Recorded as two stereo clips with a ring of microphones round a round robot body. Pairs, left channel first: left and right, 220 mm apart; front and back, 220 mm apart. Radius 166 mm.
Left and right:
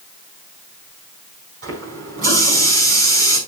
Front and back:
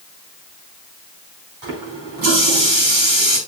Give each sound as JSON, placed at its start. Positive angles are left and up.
{"t": 1.6, "sound": "a running tap", "azimuth_deg": -140, "distance_m": 5.5}